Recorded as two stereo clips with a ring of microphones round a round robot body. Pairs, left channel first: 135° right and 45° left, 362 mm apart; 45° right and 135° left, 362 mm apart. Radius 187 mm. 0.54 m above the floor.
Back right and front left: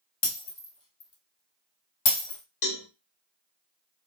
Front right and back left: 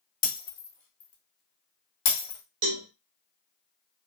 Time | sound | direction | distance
0.2 | breaking glass | 100° right | 1.1 m
2.6 | a cowbell | straight behind | 0.7 m